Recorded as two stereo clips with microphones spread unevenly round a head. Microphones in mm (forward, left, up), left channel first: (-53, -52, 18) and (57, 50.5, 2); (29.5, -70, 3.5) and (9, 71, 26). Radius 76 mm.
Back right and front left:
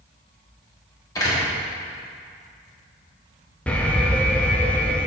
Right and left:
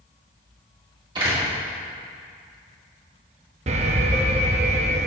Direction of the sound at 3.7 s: 135° left.